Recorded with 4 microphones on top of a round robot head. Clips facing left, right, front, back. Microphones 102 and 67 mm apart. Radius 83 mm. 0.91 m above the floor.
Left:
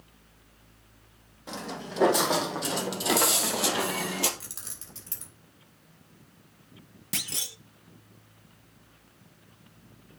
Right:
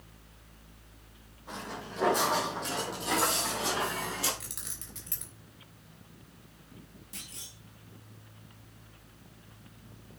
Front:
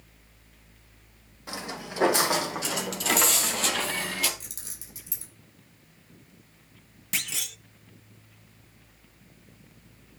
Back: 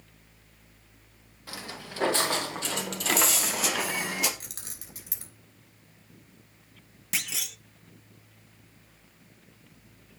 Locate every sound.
1.5 s footsteps: 70° left, 3 m; by 4.3 s 115° left, 1.9 m
4.4 s keys jangling: 145° left, 3.5 m
7.1 s a clunk: 90° left, 0.6 m